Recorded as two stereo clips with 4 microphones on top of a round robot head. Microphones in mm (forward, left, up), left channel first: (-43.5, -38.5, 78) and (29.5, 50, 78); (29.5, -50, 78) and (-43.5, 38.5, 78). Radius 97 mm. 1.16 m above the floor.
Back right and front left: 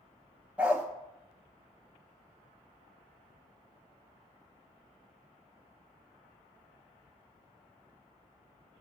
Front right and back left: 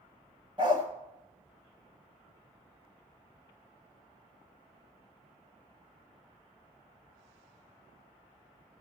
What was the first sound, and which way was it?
A dog barking, 125° left.